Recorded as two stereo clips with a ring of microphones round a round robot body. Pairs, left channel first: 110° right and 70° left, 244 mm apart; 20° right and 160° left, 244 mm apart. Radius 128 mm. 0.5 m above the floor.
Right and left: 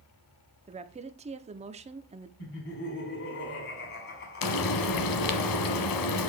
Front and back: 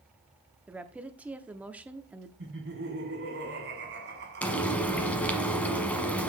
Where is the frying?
110° right, 1.0 m.